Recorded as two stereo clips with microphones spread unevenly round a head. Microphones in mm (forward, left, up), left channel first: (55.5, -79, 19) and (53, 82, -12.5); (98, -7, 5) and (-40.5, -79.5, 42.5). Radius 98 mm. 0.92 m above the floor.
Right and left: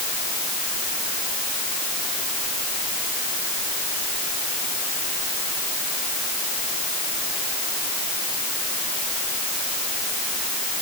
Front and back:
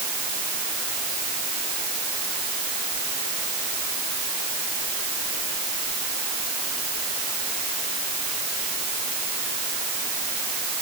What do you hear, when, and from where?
Only background noise.